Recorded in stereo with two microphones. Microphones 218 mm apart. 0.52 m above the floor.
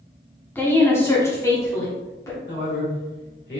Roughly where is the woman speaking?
Centre.